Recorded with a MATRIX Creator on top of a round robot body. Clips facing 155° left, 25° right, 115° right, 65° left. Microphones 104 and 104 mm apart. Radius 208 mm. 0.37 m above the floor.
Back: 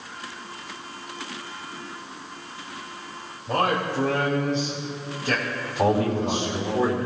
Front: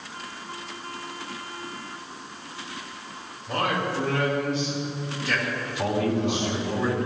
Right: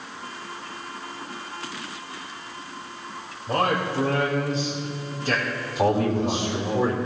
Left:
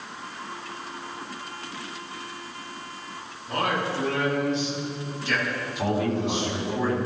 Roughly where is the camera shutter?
No camera shutter in this recording.